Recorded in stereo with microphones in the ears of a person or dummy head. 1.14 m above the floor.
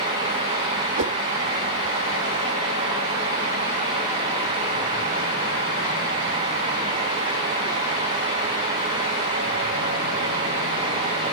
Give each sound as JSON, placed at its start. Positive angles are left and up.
{"t": 1.0, "sound": "a whoosh", "side_deg": -60, "distance_m": 0.9}